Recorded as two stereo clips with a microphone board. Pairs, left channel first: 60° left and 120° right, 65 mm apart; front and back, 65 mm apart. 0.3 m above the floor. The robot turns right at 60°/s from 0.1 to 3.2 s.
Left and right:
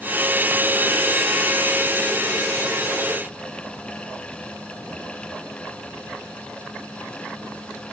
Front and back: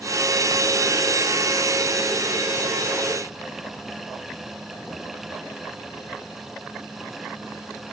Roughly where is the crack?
No crack in this recording.